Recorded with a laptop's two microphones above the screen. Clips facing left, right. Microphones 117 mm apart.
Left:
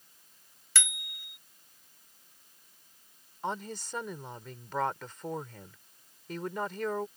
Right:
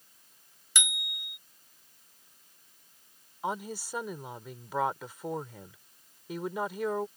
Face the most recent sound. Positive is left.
turn(degrees=-10)  # may be behind; listen again after turning